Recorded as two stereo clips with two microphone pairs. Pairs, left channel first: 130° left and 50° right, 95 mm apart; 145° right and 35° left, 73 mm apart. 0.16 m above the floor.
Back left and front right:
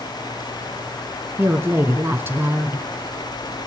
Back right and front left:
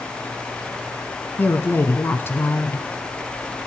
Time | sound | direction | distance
1.4 | a woman speaking | 100° right | 1.5 m